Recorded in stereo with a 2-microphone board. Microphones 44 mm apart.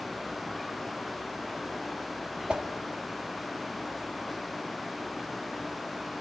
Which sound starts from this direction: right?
A whoosh, at 2.5 s.